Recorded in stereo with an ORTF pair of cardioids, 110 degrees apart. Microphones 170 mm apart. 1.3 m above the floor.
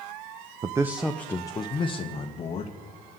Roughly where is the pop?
I don't hear a pop.